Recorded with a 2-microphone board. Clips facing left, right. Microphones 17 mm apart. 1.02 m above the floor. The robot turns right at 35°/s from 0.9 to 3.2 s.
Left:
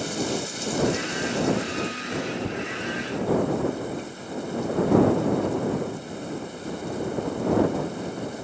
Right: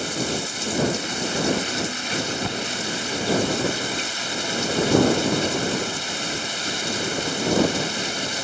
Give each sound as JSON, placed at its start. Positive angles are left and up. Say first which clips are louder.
{"t": 0.0, "sound": "running water", "louder": "right 2 dB", "azimuth_deg": -160}